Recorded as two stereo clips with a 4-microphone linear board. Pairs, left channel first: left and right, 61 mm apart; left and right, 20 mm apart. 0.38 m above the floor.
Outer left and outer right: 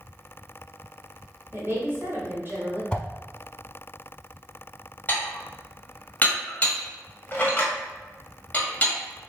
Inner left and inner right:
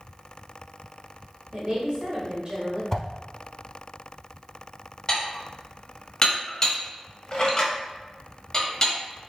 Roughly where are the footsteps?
No footsteps in this recording.